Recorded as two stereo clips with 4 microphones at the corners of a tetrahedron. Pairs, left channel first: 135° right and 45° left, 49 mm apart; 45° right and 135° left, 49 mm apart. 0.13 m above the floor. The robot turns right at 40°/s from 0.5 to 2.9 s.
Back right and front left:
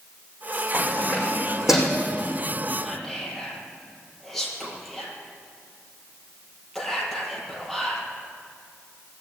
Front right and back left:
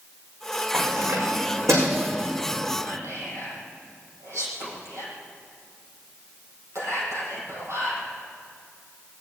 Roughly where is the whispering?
Behind left.